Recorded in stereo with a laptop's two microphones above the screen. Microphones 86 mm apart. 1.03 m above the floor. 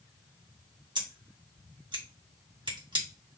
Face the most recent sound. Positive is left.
turn(degrees=-65)  # may be behind; listen again after turning